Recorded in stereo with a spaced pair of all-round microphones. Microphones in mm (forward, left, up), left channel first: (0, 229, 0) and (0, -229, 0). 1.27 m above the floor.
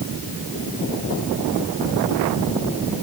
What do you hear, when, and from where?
Only background noise.